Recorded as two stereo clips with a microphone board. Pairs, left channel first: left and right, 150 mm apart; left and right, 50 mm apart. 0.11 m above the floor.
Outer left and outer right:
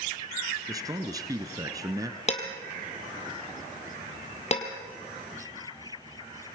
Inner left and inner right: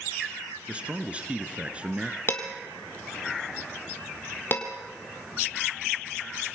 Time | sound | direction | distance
0.7 | a man speaking | 20° right (ahead or behind) | 1.3 m
2.3 | dishes clattering | 45° left (ahead or behind) | 2.5 m